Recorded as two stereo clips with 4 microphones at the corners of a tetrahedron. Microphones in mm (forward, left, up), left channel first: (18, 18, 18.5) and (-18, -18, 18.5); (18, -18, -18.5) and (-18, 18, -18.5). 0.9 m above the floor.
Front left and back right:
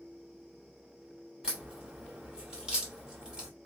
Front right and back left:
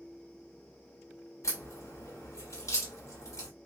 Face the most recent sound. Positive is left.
turn(degrees=-60)